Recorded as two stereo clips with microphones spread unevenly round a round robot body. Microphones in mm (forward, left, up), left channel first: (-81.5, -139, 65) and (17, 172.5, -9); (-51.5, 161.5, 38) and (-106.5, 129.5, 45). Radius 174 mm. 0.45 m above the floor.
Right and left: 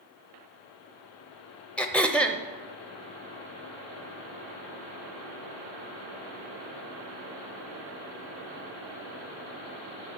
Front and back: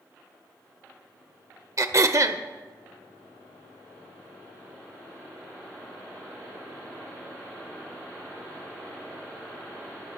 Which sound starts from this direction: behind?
Throat clearing, at 1.8 s.